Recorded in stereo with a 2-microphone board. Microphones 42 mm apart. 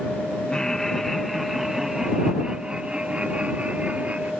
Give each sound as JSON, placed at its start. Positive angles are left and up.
{"t": 0.5, "sound": "laughter", "side_deg": 15}